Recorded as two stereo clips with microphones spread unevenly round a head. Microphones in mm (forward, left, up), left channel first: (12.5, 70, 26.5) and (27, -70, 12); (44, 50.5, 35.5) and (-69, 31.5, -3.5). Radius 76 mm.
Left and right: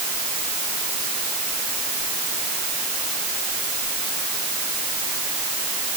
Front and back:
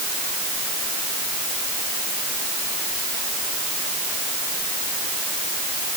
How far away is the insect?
I don't hear an insect.